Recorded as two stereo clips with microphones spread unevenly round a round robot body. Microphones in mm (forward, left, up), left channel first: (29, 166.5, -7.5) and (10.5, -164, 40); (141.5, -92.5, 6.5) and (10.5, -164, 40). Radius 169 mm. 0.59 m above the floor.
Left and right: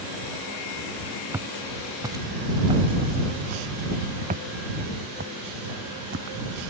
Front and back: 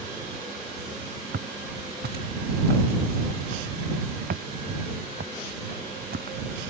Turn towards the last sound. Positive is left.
turn(degrees=-145)